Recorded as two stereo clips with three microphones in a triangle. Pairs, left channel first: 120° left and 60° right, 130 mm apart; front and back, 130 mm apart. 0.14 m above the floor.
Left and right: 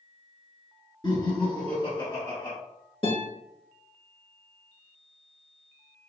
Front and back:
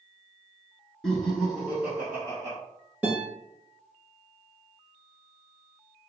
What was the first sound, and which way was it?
Laughter, 85° left.